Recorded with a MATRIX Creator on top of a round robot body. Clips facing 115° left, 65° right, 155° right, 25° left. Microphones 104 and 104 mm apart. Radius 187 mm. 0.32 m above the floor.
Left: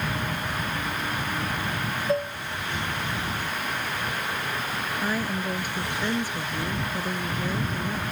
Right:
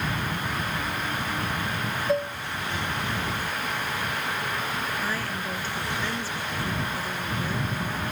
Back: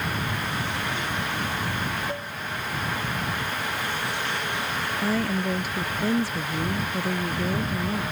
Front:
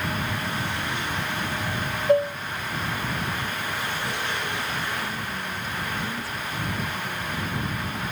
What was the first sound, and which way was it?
Dishes clattering, 20° left.